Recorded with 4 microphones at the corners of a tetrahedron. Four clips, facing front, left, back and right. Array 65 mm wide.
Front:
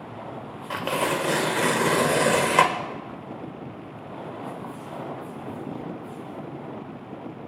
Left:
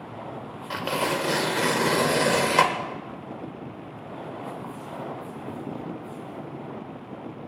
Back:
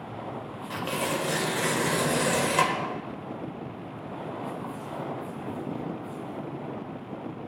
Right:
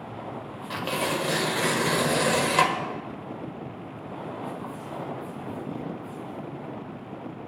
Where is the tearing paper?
20° left, 0.9 m.